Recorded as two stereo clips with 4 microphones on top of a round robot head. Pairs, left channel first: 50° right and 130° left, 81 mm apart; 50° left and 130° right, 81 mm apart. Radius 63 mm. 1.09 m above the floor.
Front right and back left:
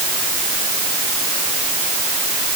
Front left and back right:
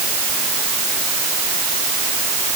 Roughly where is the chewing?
No chewing in this recording.